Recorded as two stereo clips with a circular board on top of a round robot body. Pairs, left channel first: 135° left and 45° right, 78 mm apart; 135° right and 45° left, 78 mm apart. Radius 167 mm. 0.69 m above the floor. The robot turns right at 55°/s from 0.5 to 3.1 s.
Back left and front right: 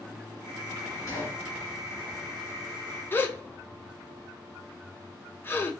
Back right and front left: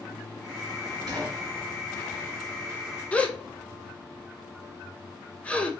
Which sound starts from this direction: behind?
A gasp, at 3.1 s.